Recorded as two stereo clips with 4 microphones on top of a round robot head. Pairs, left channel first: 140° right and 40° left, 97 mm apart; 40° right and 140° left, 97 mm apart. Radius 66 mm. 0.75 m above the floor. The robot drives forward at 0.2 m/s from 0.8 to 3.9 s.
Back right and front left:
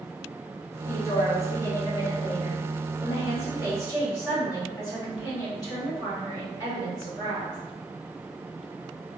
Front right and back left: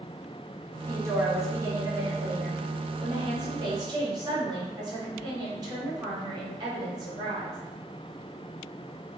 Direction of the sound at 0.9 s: Straight behind.